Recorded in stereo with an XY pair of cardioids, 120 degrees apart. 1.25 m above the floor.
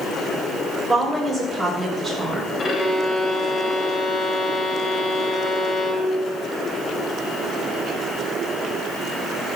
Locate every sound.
0.9 s a woman speaking: 20° right, 6 m
2.6 s a violin: 30° left, 2.5 m